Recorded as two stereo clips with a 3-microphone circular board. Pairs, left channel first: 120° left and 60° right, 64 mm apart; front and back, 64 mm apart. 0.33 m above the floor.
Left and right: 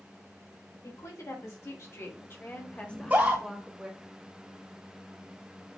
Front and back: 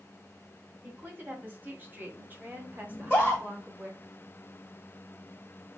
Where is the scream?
40° right, 1.7 m.